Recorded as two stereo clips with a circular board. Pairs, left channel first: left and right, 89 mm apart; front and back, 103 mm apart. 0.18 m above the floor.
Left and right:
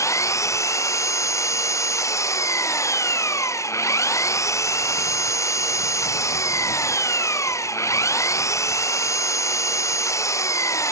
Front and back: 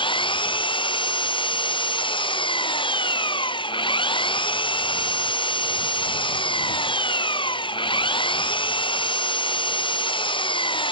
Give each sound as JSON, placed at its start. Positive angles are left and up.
{"t": 0.0, "sound": "an engine running", "azimuth_deg": 35}